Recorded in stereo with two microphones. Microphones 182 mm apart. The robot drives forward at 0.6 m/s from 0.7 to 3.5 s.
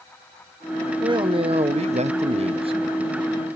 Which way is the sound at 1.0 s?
25° right (ahead or behind).